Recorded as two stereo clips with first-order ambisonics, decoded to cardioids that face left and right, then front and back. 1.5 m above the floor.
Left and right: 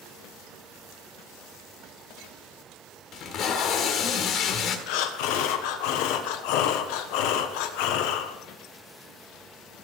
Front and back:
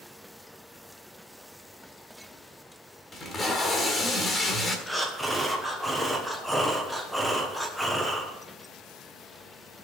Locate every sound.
3.1 s tape being pulled: 65° left, 1.5 m
4.9 s breathing: 90° left, 1.2 m